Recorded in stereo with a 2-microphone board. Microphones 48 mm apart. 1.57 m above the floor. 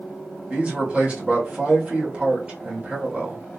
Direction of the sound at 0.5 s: 30° right (ahead or behind).